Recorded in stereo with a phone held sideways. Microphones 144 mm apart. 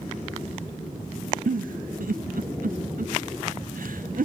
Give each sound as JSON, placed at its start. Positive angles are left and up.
{"t": 1.5, "sound": "a giggle", "side_deg": -75, "distance_m": 0.6}